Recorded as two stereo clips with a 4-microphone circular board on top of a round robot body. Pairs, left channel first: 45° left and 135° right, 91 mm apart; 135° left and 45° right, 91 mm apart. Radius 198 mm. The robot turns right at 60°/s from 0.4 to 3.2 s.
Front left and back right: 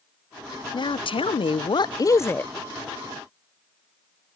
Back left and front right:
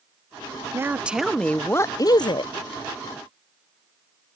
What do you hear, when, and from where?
0.7 s a woman speaking: 15° left; by 2.5 s 120° left